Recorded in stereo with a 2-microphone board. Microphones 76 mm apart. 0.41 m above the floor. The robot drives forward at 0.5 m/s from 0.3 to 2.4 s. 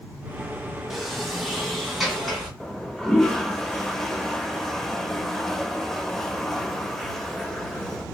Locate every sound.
0.9 s a sliding door: centre (ahead or behind), 1.0 m
2.6 s a toilet flushing: 5° left (ahead or behind), 0.7 m